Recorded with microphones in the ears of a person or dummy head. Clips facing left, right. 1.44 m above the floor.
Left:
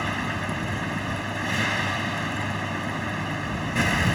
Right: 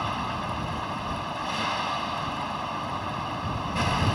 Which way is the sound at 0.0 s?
30° left (ahead or behind).